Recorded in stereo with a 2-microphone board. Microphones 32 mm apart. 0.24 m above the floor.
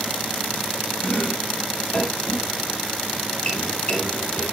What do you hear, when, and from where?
1.0 s chopping: 30° left (ahead or behind), 4.5 m